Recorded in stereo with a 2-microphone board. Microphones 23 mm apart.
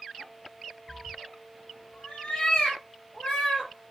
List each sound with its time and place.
0.9 s a cat meowing: 30° left (ahead or behind), 0.7 m; by 3.7 s 40° left (ahead or behind), 1.3 m